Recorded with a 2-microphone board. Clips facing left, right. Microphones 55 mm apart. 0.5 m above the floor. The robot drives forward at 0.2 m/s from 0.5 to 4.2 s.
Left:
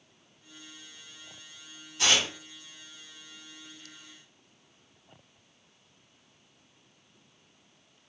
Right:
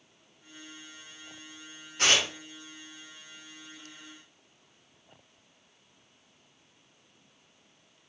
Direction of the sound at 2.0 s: 45° right (ahead or behind).